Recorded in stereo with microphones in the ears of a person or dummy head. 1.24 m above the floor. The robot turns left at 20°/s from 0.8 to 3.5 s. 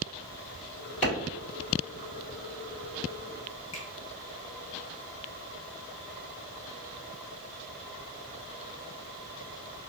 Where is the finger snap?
35° left (ahead or behind), 1.1 m.